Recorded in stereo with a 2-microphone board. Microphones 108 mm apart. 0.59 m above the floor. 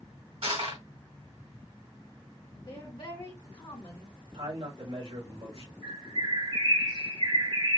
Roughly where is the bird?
Right.